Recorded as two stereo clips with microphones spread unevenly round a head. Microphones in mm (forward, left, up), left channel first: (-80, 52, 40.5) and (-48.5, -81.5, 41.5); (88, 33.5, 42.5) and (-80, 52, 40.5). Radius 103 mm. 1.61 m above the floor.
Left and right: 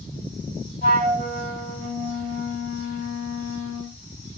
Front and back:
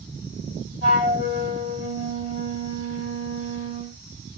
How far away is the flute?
About 3 m.